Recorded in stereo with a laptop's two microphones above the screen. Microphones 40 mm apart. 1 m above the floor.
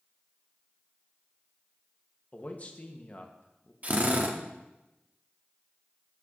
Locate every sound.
2.3 s a man speaking: 40° left (ahead or behind), 1.0 m
3.8 s a drill: 40° right (ahead or behind), 0.8 m